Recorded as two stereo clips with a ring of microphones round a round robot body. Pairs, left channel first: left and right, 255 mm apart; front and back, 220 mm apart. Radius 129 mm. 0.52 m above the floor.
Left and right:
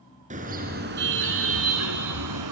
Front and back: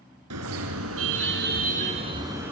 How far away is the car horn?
About 3.5 m.